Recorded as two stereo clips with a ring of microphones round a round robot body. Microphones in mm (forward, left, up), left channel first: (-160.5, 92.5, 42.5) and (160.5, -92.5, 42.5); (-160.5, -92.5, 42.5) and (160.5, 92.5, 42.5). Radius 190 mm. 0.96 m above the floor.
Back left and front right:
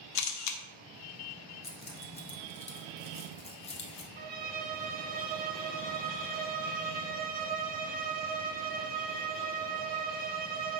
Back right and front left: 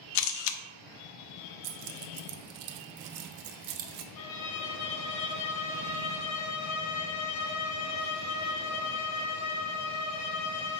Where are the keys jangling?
75° left, 0.6 m.